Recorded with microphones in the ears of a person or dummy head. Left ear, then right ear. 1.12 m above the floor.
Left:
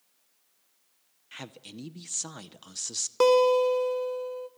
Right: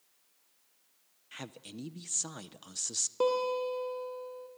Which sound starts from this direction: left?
A guitar, at 3.2 s.